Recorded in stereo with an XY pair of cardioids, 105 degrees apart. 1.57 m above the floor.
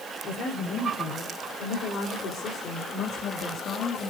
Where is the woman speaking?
65° left, 6.5 m; by 4.1 s 70° left, 3.5 m.